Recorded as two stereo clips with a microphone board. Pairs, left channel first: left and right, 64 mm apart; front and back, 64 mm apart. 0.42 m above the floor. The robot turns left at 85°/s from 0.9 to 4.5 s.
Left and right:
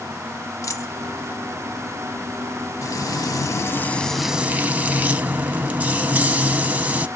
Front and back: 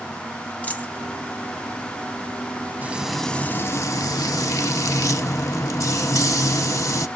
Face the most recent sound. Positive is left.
turn(degrees=-25)